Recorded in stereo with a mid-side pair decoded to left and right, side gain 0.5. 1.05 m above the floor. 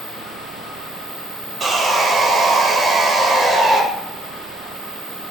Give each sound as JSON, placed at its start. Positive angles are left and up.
{"t": 1.6, "sound": "sawing", "azimuth_deg": -35, "distance_m": 1.0}